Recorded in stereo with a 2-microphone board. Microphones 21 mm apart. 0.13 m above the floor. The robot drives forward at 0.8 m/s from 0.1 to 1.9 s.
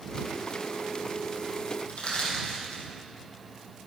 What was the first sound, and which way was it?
Crushing, 60° left (ahead or behind).